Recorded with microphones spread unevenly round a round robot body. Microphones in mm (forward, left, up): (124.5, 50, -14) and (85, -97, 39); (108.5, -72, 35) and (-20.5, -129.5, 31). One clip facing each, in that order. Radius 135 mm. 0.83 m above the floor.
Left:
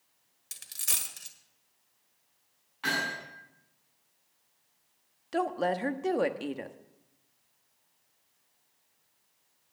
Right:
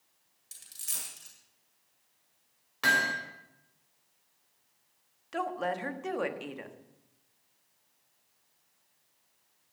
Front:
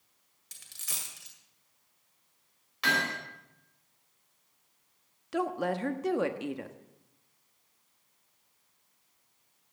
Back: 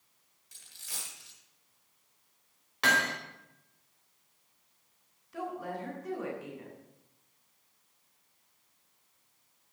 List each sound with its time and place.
0.5 s a dropped coin: 65° left, 1.7 m
2.8 s hammering: 120° right, 4 m
5.3 s a woman speaking: 35° left, 1.0 m